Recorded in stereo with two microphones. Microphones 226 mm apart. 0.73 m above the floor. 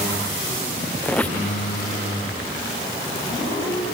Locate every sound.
1.0 s a squeak: 5° left (ahead or behind)